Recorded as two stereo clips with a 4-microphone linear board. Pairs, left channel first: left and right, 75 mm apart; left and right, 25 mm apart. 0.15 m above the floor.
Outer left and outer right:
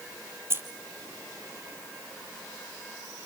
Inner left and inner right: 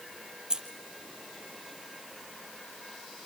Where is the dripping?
I don't hear dripping.